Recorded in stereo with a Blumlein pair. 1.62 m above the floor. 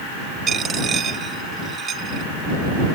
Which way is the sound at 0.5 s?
25° right.